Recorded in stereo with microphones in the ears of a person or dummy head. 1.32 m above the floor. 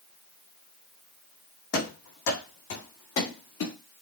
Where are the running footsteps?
65° left (ahead or behind), 3 m; by 3.7 s 70° left (ahead or behind), 5 m.